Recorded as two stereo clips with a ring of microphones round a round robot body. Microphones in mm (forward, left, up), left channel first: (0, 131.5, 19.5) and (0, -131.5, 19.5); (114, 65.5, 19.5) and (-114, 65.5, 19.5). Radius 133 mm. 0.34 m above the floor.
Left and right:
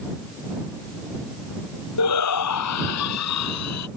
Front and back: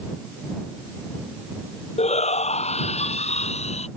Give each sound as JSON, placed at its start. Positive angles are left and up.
{"t": 2.0, "sound": "a shout", "azimuth_deg": 60}